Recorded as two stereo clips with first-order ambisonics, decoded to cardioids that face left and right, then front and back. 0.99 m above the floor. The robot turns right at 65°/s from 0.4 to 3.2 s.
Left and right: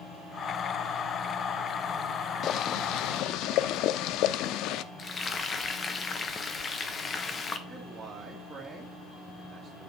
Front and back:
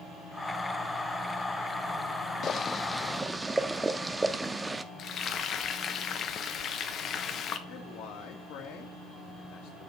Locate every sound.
2.4 s boiling: 50° left, 0.5 m; by 4.8 s 100° left, 0.5 m
5.0 s frying: 30° left, 0.9 m
7.7 s a man speaking: 15° right, 1.7 m